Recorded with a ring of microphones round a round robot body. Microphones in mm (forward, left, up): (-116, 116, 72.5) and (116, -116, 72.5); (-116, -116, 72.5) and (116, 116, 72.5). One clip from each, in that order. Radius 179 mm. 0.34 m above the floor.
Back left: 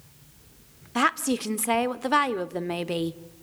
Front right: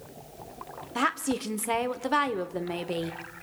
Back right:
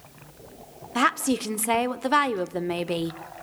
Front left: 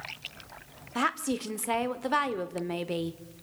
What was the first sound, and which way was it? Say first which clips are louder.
A woman speaking: back left 4 dB, back right 6 dB; 170° left.